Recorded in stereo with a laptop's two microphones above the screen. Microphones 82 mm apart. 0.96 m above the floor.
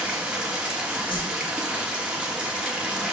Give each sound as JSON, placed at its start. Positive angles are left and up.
{"t": 0.0, "sound": "running water", "side_deg": -10, "distance_m": 1.9}
{"t": 1.1, "sound": "a whoosh", "side_deg": 75, "distance_m": 2.5}